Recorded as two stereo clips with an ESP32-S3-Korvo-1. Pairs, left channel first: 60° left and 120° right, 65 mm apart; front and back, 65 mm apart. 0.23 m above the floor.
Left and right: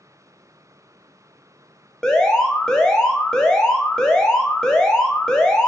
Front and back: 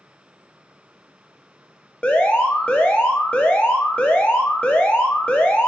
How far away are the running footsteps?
No running footsteps in this recording.